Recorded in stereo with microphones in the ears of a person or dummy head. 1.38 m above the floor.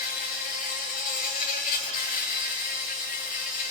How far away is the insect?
About 1.7 m.